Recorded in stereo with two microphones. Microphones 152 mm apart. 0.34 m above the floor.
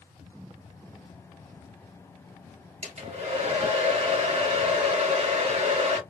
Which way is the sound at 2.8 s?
45° right (ahead or behind).